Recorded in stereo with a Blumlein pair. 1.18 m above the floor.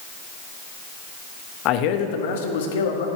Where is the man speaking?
40° left, 0.9 m; by 3.1 s 60° left, 1.6 m.